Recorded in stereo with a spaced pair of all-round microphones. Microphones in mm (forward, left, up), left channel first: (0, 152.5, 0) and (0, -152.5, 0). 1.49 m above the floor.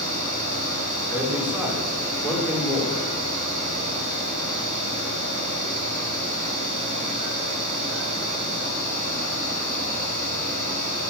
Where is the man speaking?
5° right (ahead or behind), 4.5 m.